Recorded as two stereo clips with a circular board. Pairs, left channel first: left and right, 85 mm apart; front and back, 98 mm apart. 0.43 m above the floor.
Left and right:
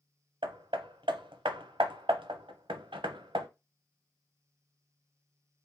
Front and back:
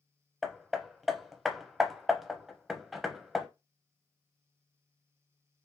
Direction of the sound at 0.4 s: 90° right.